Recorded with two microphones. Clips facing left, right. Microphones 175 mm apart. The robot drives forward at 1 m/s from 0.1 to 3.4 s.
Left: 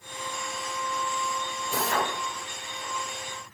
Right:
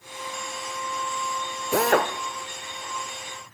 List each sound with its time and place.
1.7 s a drill: 75° right (ahead or behind), 2.5 m; by 2.1 s 80° right, 2.5 m